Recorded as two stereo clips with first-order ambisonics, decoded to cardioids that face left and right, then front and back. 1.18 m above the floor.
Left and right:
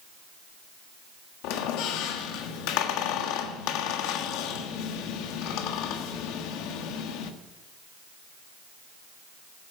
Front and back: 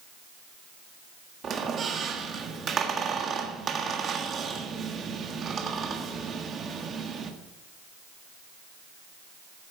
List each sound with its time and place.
1.4 s a squeak: 115° left, 1.4 m